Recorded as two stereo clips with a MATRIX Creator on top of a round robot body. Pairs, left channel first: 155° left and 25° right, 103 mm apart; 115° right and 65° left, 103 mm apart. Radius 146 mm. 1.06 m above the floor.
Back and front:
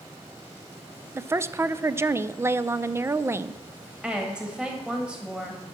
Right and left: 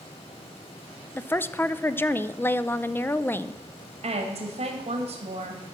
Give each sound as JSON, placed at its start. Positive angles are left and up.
{"t": 1.1, "sound": "a woman speaking", "azimuth_deg": -65, "distance_m": 0.6}
{"t": 4.0, "sound": "a woman speaking", "azimuth_deg": 60, "distance_m": 1.8}